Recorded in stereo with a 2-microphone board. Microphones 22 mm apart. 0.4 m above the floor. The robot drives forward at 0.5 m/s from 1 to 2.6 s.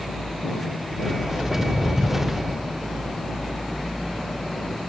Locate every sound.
1.4 s footsteps: 80° left, 4.5 m; by 2.3 s 85° left, 4.5 m